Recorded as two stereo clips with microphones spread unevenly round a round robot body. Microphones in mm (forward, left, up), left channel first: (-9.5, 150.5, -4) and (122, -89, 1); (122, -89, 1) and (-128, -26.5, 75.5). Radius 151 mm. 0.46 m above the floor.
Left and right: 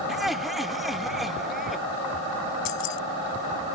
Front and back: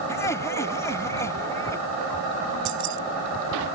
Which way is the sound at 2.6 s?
130° left.